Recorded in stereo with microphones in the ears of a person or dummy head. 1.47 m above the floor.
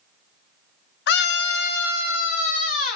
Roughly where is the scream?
Left.